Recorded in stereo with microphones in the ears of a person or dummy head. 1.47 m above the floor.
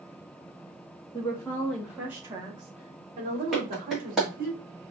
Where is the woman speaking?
20° left (ahead or behind), 1.2 m; by 4.5 s 45° right (ahead or behind), 2.5 m.